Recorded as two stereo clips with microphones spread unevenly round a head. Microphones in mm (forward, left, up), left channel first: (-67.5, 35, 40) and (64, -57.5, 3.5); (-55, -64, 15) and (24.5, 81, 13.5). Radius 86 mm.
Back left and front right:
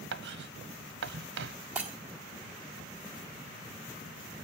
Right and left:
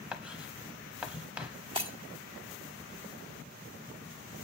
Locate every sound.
0.1 s writing: 25° right, 1.0 m
1.8 s breaking glass: 65° left, 1.3 m